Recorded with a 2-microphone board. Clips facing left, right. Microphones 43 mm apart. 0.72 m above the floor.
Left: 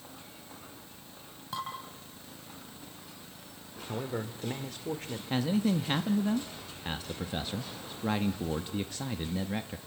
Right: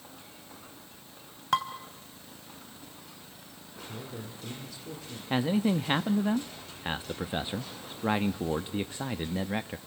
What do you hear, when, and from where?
1.5 s dishes clattering: 65° right (ahead or behind), 3 m
3.9 s a man speaking: 55° left (ahead or behind), 2.5 m
5.3 s a man speaking: 25° right (ahead or behind), 0.7 m